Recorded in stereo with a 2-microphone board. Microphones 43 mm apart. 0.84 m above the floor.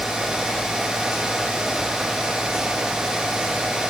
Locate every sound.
Only background noise.